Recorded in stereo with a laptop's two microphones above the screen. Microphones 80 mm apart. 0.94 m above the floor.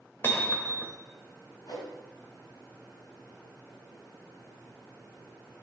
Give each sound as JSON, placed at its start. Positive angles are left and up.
{"t": 0.2, "sound": "hammering", "side_deg": 30, "distance_m": 2.0}
{"t": 1.7, "sound": "a whoosh", "side_deg": 80, "distance_m": 5.0}